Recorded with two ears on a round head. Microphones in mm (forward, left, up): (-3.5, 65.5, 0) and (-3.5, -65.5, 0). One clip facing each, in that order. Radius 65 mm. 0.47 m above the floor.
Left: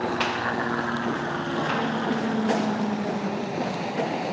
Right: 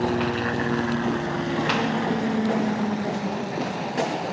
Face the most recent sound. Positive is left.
turn(degrees=5)  # may be behind; listen again after turning